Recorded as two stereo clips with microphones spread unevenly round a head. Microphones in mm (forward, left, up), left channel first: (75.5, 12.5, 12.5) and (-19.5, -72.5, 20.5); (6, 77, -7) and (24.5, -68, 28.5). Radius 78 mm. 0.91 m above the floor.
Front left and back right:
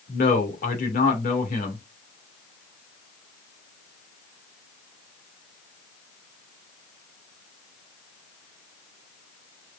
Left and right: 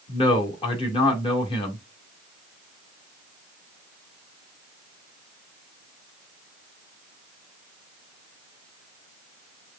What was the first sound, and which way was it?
A man speaking, 50° left.